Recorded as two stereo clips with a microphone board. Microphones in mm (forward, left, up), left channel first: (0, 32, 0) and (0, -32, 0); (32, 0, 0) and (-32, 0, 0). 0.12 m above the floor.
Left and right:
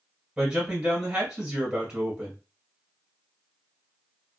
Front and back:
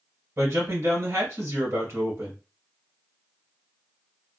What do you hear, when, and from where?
0.4 s a man speaking: 165° right, 1.7 m